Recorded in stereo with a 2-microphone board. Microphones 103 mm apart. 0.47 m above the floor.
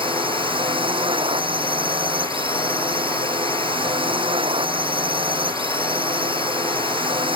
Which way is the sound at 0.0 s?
55° right (ahead or behind).